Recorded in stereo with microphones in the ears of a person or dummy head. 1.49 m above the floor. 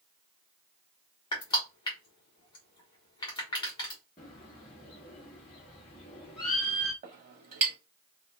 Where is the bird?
15° left (ahead or behind), 0.7 m.